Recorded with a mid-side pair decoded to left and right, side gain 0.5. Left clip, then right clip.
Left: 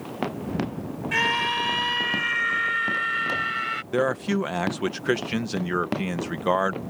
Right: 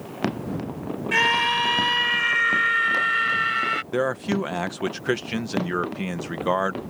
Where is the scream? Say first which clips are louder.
Right 3 dB; 20° right; by 3.8 s 25° right.